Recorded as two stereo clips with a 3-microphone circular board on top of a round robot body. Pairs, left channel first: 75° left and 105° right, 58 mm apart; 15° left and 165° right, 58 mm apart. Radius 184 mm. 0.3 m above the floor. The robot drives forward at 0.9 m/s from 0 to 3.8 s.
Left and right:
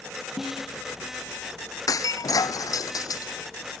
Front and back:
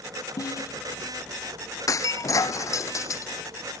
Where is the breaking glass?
50° left.